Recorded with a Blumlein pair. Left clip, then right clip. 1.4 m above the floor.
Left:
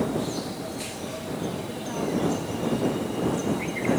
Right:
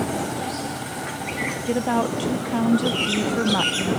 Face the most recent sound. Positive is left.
turn(degrees=-55)